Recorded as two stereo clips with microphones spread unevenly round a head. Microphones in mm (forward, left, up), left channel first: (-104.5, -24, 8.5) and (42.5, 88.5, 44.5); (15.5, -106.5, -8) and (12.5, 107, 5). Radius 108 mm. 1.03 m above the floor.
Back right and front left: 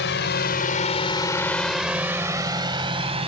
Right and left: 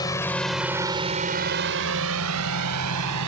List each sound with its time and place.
0.0 s a drone: 165° right; by 3.3 s 95° left